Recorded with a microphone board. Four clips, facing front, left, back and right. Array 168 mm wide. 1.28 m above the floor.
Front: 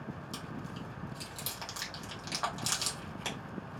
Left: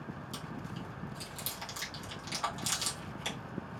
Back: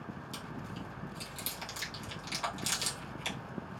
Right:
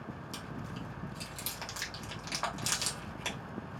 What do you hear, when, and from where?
0.3 s chewing: 45° right, 1.9 m